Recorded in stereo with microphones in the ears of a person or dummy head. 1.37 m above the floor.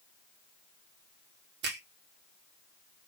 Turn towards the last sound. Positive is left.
turn(degrees=-50)  # may be behind; listen again after turning